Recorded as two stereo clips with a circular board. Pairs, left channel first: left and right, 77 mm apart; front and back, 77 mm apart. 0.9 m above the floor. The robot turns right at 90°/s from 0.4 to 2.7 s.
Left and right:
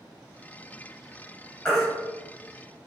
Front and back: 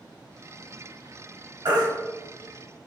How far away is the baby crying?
About 1.4 m.